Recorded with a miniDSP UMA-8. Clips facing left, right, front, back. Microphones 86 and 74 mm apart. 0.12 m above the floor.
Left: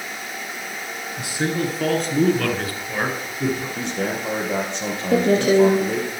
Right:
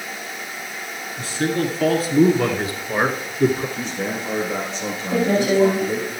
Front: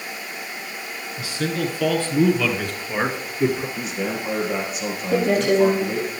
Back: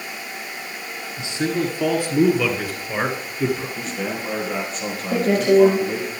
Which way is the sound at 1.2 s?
145° left.